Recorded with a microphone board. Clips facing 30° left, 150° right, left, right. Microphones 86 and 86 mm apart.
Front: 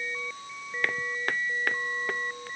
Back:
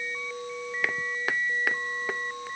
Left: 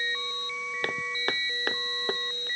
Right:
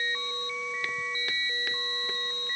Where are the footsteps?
125° left.